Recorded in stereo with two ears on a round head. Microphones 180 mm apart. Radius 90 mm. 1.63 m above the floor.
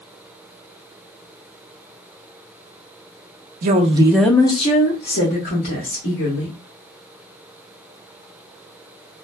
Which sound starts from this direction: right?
A woman speaking, at 3.6 s.